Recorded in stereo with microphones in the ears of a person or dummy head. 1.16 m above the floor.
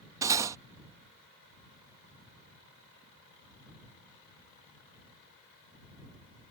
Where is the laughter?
I don't hear laughter.